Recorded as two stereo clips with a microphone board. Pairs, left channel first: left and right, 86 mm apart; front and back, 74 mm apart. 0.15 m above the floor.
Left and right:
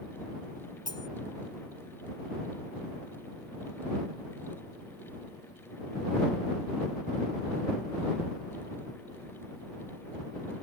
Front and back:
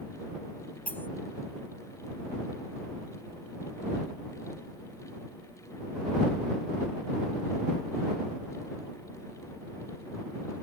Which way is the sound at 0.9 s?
65° left.